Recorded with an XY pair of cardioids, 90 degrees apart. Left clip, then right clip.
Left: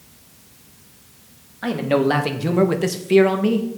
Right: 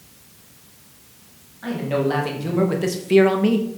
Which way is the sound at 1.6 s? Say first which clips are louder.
Left 4 dB; 70° left.